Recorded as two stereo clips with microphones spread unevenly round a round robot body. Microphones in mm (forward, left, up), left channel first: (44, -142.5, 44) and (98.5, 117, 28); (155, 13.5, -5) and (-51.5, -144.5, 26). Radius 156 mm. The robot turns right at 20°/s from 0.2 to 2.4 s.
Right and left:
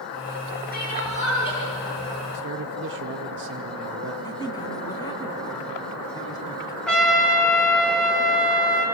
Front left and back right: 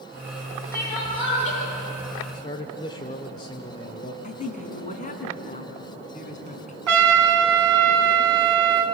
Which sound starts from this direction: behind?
A trumpet, at 6.9 s.